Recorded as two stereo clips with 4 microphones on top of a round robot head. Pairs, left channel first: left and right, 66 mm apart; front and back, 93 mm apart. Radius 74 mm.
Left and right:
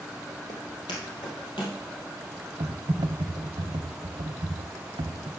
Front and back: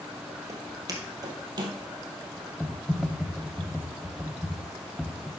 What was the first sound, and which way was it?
Footsteps, 130° left.